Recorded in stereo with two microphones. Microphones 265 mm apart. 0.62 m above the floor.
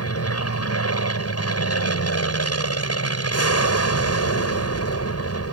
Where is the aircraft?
60° left (ahead or behind).